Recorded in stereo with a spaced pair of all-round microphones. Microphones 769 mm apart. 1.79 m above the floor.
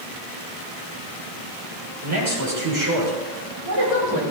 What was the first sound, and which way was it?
A man speaking, 20° right (ahead or behind).